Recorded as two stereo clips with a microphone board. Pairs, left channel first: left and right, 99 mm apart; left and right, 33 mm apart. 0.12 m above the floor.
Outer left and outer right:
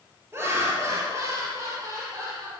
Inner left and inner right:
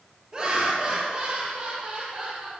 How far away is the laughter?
About 2.5 m.